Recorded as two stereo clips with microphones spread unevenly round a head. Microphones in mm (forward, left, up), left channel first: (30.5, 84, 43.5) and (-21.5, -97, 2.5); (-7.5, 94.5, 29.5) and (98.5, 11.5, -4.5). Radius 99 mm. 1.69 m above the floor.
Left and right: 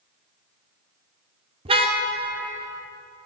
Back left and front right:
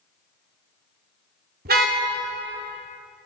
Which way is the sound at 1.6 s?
40° right.